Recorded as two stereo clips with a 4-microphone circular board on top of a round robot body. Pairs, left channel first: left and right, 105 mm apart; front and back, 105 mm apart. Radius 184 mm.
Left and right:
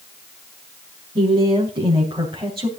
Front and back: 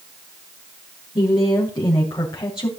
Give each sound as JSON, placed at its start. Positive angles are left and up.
{"t": 1.1, "sound": "a woman speaking", "azimuth_deg": -50, "distance_m": 4.5}